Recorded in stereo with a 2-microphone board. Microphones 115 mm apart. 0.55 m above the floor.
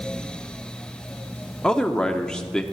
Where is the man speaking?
5° left (ahead or behind), 0.7 m.